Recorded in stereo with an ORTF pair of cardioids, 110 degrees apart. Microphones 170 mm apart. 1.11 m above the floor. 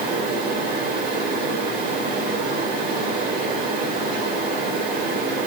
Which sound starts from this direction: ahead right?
A fan, at 0.0 s.